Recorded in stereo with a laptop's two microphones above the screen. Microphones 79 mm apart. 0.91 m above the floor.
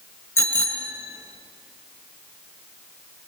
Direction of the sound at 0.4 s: 35° left (ahead or behind).